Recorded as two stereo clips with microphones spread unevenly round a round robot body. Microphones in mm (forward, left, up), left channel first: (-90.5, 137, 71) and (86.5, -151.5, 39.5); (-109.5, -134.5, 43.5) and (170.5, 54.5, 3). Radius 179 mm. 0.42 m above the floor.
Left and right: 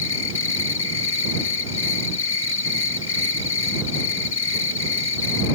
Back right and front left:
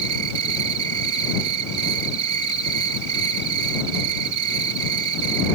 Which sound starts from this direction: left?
An insect, at 0.0 s.